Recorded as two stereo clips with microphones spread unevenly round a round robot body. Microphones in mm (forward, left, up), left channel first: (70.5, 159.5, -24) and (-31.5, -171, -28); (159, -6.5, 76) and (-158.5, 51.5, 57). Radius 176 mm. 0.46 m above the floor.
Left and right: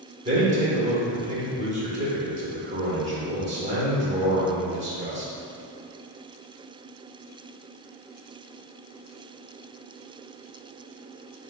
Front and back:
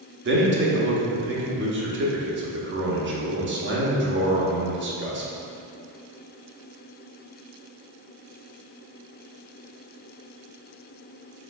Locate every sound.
0.2 s a man speaking: 170° right, 0.9 m